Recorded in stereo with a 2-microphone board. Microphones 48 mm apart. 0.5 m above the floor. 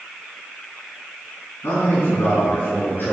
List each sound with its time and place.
1.6 s a man speaking: 55° left (ahead or behind), 3.5 m; by 3.1 s 35° left (ahead or behind), 4.5 m